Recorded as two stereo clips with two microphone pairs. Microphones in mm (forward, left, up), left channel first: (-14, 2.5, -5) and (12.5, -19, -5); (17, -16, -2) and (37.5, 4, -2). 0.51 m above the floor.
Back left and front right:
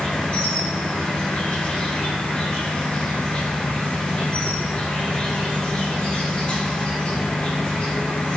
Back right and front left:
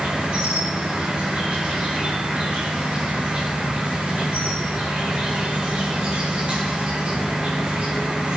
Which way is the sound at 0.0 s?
90° left.